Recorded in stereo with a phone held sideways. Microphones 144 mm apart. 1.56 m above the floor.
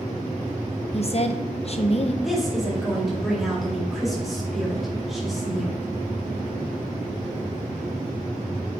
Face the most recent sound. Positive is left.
turn(degrees=0)  # may be behind; listen again after turning